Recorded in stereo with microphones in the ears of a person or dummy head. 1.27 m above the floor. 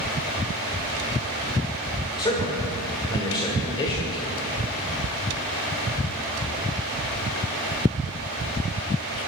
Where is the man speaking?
25° left (ahead or behind), 5.5 m.